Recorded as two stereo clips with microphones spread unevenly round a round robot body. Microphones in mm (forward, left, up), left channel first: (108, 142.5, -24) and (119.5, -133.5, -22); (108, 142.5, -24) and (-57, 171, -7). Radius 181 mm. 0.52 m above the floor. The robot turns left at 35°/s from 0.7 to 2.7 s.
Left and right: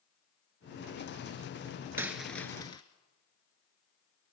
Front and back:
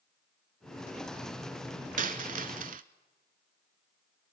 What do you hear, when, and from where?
2.0 s a dropped coin: 170° right, 0.7 m; by 2.8 s 165° left, 0.7 m